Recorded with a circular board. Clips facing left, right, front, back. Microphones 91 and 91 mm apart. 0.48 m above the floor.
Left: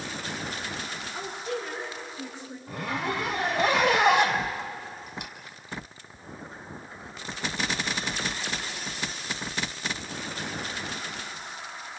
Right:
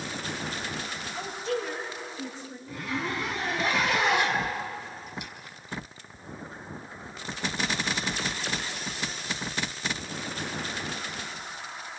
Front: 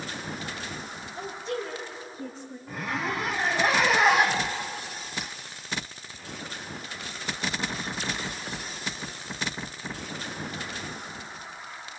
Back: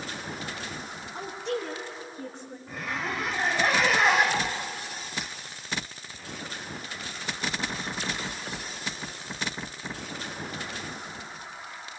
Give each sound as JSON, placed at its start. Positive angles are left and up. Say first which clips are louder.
{"t": 1.1, "sound": "a woman speaking", "louder": "right 2 dB, back 1 dB", "azimuth_deg": 165, "distance_m": 5.5}
{"t": 2.7, "sound": "a zipper", "louder": "left 2 dB, front 2 dB", "azimuth_deg": 85, "distance_m": 2.5}